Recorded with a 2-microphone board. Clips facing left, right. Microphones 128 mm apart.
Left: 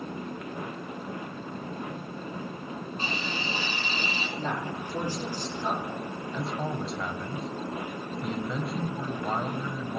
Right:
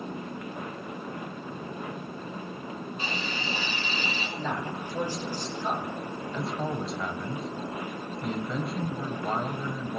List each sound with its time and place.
3.0 s a hiss: 40° left (ahead or behind), 3 m
4.4 s a man speaking: 50° left (ahead or behind), 5 m
6.3 s a man speaking: centre (ahead or behind), 1.1 m